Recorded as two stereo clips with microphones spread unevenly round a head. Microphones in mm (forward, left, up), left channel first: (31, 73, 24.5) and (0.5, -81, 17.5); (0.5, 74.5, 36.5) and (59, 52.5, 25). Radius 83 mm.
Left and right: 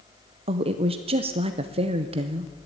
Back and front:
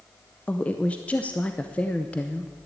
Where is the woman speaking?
125° right, 0.8 m.